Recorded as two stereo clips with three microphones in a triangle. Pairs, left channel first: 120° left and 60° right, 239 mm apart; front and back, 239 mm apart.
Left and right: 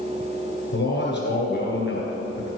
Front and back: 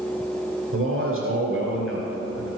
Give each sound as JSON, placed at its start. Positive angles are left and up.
{"t": 0.7, "sound": "a man speaking", "azimuth_deg": 160, "distance_m": 2.5}